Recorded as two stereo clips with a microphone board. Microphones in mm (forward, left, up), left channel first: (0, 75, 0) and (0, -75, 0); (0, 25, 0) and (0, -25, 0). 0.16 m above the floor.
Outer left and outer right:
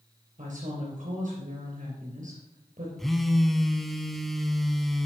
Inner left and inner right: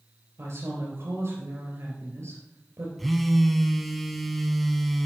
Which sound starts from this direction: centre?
A phone buzzing, at 3.0 s.